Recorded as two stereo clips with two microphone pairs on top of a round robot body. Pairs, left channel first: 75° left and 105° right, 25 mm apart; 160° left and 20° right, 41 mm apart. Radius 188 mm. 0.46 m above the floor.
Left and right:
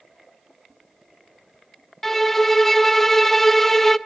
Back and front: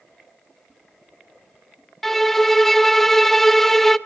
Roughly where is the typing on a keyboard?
No typing on a keyboard in this recording.